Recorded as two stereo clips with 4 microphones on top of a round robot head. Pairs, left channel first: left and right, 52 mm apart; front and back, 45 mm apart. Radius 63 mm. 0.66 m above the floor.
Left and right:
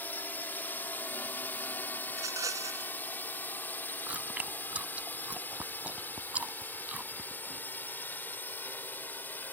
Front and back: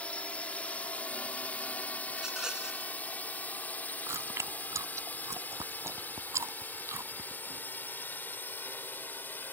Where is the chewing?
155° right.